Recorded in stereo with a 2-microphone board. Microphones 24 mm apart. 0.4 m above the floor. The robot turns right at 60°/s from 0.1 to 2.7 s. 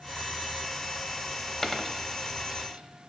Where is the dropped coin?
10° left (ahead or behind), 0.6 m; by 3.1 s 55° right (ahead or behind), 0.6 m.